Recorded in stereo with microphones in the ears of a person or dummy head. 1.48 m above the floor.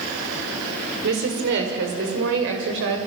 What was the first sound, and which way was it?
A woman speaking, 55° right (ahead or behind).